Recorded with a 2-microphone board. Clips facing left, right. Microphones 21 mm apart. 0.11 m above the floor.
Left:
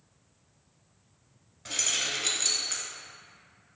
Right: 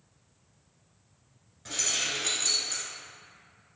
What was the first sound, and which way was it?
Keys jangling, 15° left (ahead or behind).